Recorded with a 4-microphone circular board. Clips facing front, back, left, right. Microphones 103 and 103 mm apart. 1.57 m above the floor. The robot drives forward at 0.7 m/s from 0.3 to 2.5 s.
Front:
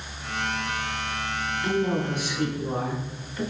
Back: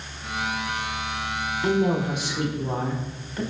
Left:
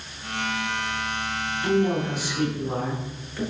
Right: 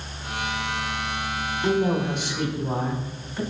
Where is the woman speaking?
150° right, 1.2 m; by 3.4 s 160° right, 1.8 m.